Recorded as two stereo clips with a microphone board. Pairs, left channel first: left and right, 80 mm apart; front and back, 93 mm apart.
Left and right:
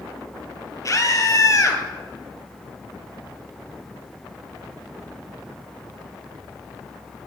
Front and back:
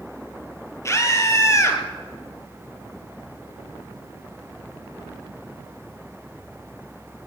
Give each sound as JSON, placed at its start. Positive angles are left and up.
{"t": 0.8, "sound": "a scream", "azimuth_deg": 55, "distance_m": 2.5}